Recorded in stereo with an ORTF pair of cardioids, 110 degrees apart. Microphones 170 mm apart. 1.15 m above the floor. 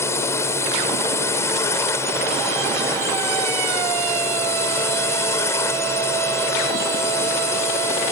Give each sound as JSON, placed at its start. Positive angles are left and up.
{"t": 0.0, "sound": "a drone", "azimuth_deg": 15}